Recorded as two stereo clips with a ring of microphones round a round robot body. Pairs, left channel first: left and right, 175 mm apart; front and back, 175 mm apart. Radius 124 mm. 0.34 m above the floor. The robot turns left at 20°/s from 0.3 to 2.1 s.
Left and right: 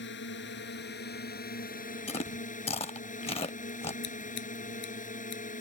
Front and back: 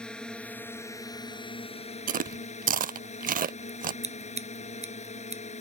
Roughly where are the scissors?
Behind left.